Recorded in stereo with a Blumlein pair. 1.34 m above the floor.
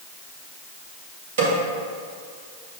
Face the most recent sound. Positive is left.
turn(degrees=-55)